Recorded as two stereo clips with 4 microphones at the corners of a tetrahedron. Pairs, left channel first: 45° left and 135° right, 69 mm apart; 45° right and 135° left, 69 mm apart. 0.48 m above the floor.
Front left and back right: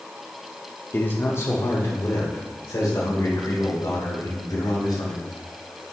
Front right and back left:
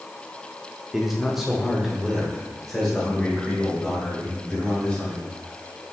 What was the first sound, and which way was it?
A man speaking, 55° left.